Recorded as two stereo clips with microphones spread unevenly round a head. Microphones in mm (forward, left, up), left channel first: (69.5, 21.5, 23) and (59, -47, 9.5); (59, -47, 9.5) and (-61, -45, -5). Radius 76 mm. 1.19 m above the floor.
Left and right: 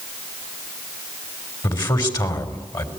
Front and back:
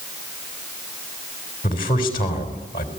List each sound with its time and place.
1.6 s a man speaking: 60° left, 3.5 m